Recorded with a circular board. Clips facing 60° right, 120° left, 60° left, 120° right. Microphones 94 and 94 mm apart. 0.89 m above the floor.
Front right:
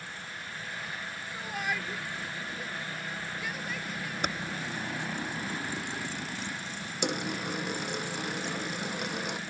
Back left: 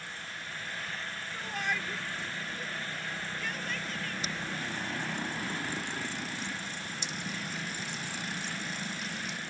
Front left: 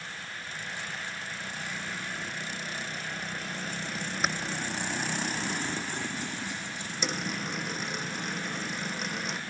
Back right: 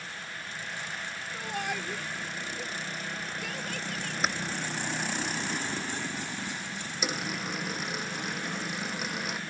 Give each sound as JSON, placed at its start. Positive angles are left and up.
{"t": 1.3, "sound": "a shout", "azimuth_deg": -145}
{"t": 4.2, "sound": "typing on a keyboard", "azimuth_deg": -30}
{"t": 7.0, "sound": "a dropped coin", "azimuth_deg": -35}